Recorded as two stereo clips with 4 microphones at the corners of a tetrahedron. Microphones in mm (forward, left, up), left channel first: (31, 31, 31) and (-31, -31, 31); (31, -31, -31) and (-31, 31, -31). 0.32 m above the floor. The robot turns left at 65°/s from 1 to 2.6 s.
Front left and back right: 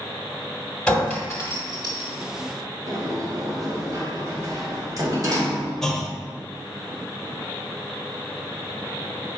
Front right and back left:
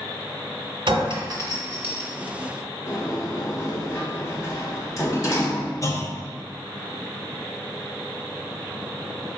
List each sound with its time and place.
0.9 s a clink: 125° left, 1.2 m; by 2.1 s 50° left, 1.2 m
2.9 s a sliding door: 95° right, 0.9 m
5.8 s a clunk: 35° right, 0.5 m